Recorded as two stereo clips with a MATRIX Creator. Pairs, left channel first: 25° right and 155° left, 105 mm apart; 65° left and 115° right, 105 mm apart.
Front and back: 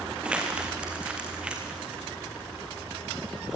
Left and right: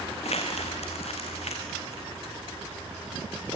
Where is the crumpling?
75° left, 3.5 m.